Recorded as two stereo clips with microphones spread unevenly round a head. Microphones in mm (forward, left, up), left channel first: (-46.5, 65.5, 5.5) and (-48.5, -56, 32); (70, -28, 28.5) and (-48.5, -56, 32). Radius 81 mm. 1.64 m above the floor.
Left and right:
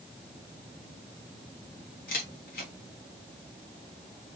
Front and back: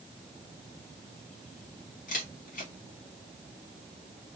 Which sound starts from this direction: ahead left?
A camera shutter, at 2.1 s.